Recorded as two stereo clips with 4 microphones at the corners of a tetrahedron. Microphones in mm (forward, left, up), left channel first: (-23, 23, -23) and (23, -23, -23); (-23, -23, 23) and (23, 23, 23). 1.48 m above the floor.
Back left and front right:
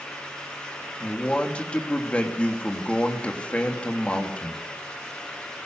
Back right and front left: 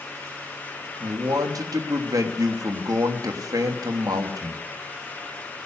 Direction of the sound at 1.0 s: 65° left.